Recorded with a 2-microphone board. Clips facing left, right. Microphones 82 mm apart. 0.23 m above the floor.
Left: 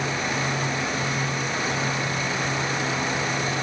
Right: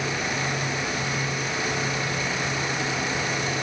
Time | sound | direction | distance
0.0 | an insect | 20° left (ahead or behind) | 2.5 m